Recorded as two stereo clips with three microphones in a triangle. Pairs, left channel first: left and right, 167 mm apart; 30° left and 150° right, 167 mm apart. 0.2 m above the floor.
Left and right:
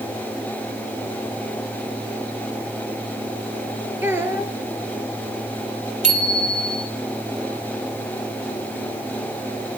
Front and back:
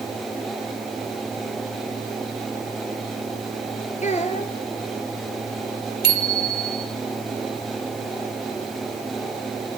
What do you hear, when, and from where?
4.0 s a child speaking: 15° right, 2.5 m
6.0 s a bicycle bell: 135° right, 4 m